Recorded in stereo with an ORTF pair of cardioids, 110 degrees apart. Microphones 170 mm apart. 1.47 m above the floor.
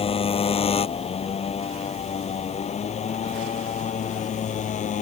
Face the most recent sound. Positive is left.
turn(degrees=45)